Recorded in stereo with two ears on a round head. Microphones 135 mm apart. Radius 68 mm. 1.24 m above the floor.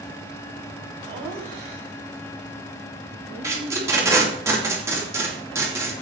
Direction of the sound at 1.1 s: 40° right (ahead or behind).